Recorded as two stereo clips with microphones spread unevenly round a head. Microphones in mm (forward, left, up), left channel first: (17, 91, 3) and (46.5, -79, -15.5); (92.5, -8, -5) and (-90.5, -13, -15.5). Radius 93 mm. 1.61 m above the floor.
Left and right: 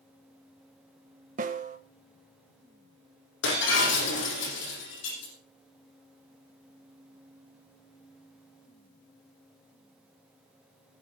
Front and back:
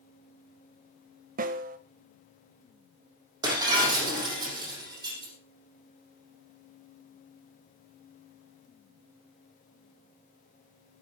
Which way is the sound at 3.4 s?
110° left.